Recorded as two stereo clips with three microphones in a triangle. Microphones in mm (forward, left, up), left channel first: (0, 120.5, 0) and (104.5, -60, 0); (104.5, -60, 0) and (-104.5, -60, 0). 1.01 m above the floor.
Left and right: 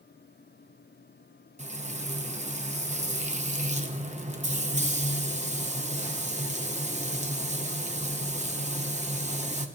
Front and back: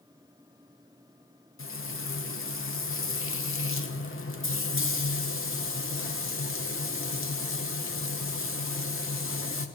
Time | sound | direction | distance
1.6 | frying | straight ahead | 0.8 m